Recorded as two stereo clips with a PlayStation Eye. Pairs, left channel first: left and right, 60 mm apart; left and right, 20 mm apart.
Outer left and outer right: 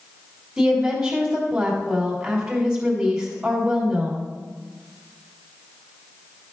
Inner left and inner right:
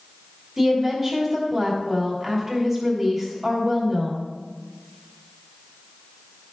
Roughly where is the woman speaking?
Centre.